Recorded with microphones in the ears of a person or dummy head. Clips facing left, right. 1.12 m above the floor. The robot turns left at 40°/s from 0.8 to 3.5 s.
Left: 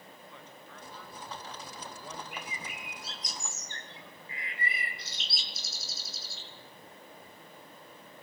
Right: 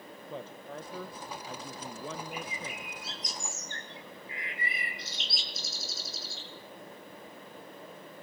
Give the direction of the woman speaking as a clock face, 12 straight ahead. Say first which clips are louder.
Right 9 dB; 1 o'clock.